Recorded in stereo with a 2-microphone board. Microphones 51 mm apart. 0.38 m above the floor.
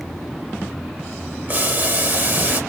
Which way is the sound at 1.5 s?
40° right (ahead or behind).